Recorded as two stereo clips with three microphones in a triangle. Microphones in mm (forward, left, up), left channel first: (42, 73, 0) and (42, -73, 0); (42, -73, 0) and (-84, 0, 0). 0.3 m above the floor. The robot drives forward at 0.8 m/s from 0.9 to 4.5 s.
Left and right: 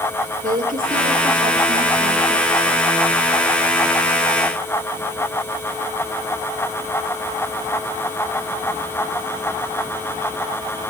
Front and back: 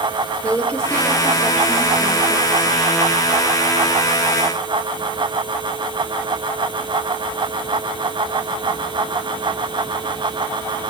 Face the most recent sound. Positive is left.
turn(degrees=-130)